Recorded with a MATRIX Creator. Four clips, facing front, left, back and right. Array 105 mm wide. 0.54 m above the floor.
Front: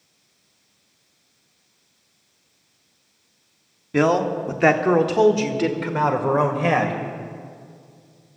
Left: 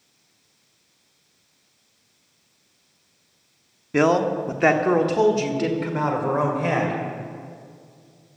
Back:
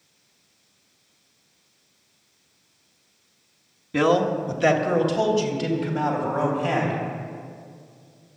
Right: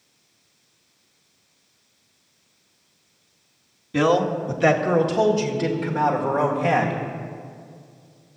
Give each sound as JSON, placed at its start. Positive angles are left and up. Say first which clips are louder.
{"t": 3.9, "sound": "a man speaking", "louder": "left 1 dB, front 1 dB", "azimuth_deg": 60, "distance_m": 1.0}